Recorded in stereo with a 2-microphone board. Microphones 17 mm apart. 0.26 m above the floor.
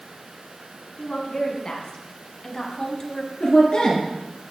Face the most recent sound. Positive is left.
turn(degrees=75)  # may be behind; listen again after turning